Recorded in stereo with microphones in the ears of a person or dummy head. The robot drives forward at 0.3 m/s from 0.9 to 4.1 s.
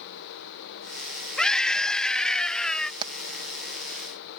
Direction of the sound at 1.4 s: Centre (ahead or behind).